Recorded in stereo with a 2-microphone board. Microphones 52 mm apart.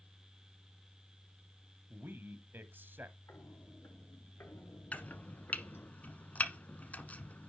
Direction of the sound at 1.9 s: 40° right (ahead or behind).